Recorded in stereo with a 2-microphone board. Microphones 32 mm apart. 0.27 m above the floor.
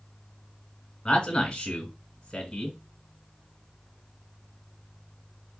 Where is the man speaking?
25° left (ahead or behind), 1.5 m.